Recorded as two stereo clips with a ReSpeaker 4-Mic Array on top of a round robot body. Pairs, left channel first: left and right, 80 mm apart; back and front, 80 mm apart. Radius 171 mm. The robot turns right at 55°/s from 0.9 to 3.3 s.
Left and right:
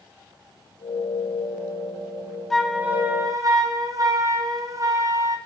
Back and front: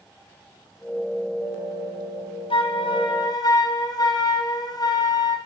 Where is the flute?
175° left, 1.8 m; by 5.4 s 140° right, 1.8 m.